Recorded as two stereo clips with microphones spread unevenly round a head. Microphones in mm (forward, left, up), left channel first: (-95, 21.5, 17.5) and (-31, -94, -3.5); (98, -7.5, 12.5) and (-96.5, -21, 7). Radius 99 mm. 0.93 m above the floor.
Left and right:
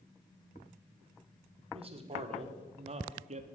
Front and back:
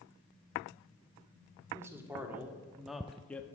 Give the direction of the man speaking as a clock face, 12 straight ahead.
3 o'clock.